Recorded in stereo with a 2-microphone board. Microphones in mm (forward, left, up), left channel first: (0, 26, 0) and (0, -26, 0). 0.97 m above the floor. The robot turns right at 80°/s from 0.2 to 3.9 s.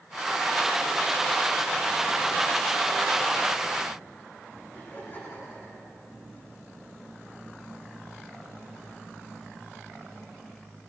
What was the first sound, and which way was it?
Laughter, 40° left (ahead or behind).